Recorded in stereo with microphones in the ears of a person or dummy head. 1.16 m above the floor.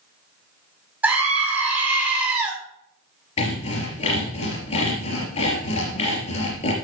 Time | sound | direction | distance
1.0 | a scream | 10° right (ahead or behind) | 4 m
3.4 | sawing | 30° left (ahead or behind) | 4 m